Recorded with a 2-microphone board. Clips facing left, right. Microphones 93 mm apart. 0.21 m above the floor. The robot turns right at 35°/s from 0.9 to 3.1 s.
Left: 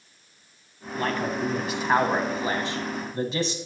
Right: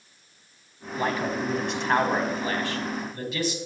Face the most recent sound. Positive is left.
turn(degrees=55)